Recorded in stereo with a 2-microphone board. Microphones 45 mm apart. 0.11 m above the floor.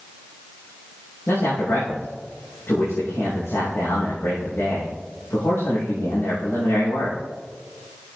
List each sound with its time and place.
1.3 s a man speaking: 70° left (ahead or behind), 5 m